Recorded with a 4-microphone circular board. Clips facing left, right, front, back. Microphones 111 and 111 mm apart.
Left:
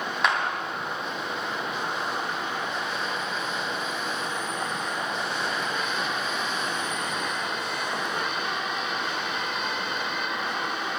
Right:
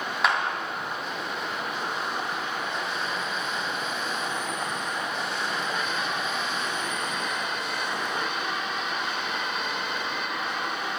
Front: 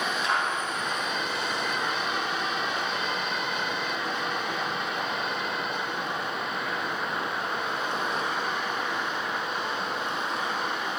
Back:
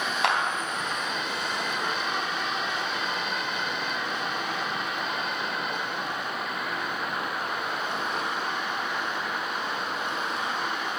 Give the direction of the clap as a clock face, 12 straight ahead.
6 o'clock.